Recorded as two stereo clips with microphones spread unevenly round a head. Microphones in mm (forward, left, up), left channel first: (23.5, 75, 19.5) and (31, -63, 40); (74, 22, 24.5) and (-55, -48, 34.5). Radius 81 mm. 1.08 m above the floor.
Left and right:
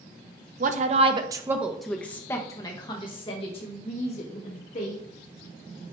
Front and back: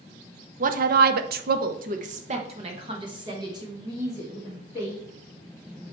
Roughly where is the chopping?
No chopping in this recording.